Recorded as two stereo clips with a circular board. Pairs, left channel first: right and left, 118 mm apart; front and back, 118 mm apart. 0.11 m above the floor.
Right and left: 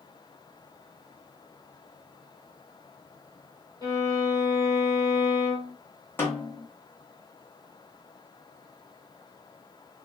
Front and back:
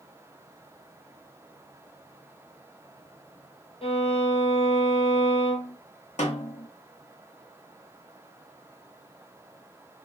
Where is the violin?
30° right, 1.4 m.